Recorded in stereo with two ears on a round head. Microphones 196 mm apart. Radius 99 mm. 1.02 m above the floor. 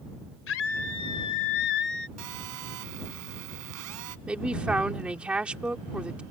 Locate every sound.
0.5 s a scream: 60° left (ahead or behind); by 2.1 s 50° left (ahead or behind)
2.2 s a phone buzzing: 75° right (ahead or behind)
4.3 s a man speaking: 5° right (ahead or behind)